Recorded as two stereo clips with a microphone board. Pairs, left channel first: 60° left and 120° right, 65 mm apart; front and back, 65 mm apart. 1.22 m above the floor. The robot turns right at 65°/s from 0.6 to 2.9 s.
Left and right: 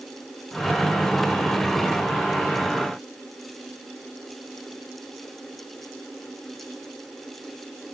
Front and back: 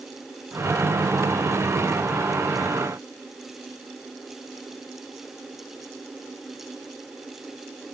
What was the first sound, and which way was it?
Only background noise.